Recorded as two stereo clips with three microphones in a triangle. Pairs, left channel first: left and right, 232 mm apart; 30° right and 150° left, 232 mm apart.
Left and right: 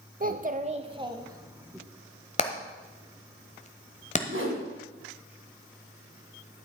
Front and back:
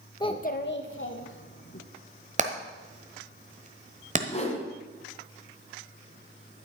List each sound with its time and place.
0.2 s a child speaking: 90° right, 0.6 m; by 1.8 s 10° right, 1.6 m
2.4 s hammering: 125° left, 1.2 m
4.3 s a whoosh: 85° right, 2 m